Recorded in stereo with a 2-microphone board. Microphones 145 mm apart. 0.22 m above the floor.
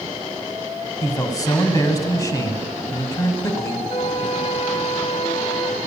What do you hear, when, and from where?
1.0 s a man speaking: 25° left (ahead or behind), 1.2 m
3.9 s a flute: 45° left (ahead or behind), 1.6 m